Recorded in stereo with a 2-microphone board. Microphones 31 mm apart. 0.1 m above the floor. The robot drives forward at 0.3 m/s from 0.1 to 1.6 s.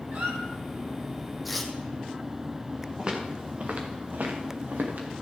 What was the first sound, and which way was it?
A squeak, 65° right (ahead or behind).